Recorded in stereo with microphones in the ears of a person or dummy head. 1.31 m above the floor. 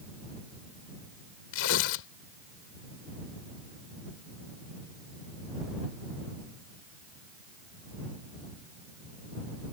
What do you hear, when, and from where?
1.5 s tearing paper: 70° left (ahead or behind)